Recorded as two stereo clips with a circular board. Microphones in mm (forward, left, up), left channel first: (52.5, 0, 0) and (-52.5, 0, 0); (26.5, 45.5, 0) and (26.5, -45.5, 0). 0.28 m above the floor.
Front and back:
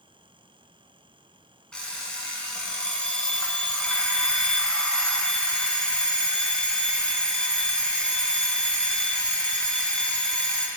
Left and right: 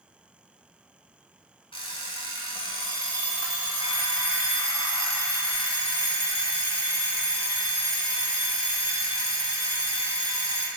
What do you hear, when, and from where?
1.7 s an alarm clock: 80° left, 1.1 m